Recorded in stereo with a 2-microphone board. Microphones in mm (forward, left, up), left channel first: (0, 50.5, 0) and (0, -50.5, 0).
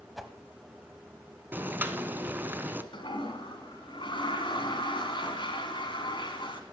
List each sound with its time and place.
0.2 s a whoosh: centre (ahead or behind), 1.3 m
1.5 s boiling: 20° right (ahead or behind), 0.9 m
2.9 s a toilet flushing: 55° left (ahead or behind), 2 m